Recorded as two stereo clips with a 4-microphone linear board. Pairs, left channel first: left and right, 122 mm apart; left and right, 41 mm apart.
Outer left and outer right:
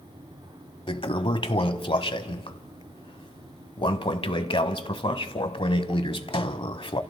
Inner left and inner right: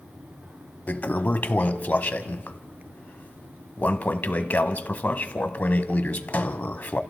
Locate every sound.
0.9 s a toilet flushing: 45° left (ahead or behind), 1.1 m